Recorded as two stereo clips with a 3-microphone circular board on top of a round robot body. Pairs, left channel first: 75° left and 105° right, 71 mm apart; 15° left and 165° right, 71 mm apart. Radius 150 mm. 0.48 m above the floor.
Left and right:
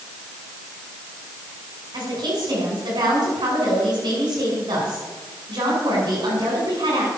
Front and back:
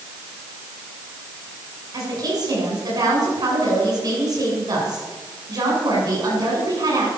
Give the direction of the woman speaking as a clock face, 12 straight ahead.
4 o'clock.